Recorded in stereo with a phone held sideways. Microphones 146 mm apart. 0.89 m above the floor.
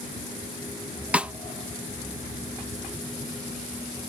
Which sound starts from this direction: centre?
A snare drum, at 1.1 s.